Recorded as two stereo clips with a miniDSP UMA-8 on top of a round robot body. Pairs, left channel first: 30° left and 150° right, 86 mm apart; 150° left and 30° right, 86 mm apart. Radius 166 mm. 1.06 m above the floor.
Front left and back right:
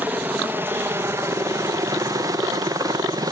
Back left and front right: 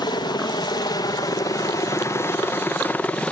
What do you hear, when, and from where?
0.0 s a helicopter: 145° left; by 3.3 s 140° right